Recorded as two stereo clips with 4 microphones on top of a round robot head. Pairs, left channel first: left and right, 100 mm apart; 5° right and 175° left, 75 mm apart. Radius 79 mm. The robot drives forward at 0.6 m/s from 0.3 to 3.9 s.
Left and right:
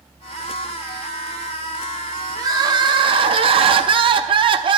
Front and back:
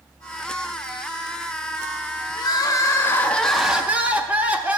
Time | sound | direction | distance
2.4 | crying | 35° right | 0.9 m